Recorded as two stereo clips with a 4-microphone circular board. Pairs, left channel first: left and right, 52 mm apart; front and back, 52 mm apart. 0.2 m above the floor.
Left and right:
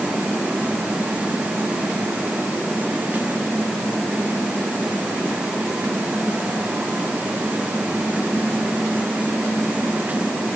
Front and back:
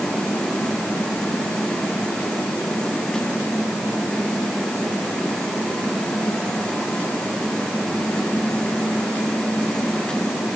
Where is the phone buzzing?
No phone buzzing in this recording.